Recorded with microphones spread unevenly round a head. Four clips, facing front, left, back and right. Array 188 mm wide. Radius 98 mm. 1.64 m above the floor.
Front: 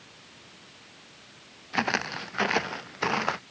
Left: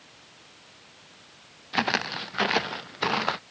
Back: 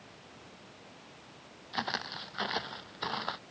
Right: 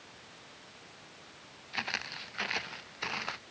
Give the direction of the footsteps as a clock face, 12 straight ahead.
10 o'clock.